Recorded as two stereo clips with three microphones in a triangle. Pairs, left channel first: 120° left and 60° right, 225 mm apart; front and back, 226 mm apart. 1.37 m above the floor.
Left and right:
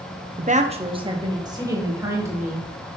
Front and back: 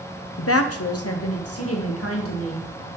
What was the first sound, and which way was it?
A woman speaking, 10° right.